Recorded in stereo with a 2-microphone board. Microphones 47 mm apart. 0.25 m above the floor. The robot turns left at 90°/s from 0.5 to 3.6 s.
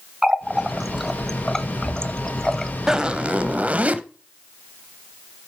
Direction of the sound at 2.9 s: 25° right.